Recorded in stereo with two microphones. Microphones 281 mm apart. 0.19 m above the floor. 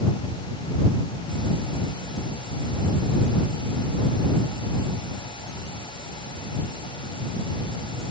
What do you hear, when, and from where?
Only background noise.